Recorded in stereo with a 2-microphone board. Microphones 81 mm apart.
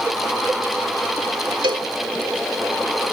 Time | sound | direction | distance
1.6 | a cowbell | 75° right (ahead or behind) | ?